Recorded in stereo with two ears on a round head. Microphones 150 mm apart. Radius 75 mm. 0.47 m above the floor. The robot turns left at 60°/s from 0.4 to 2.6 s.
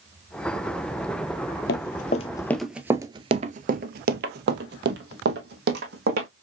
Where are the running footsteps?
65° left (ahead or behind), 1.0 m; by 6.3 s 65° right (ahead or behind), 1.8 m.